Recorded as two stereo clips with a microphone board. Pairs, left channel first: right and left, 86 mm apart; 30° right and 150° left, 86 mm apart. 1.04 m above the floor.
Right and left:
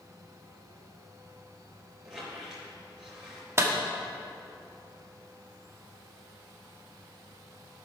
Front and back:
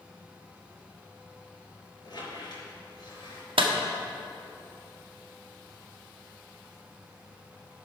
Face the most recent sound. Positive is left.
turn(degrees=150)